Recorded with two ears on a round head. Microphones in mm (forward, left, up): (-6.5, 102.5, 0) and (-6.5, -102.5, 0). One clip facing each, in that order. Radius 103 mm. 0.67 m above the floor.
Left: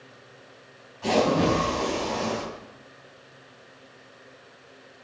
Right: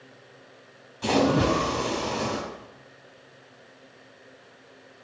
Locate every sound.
1.0 s a splash: 50° right (ahead or behind), 4 m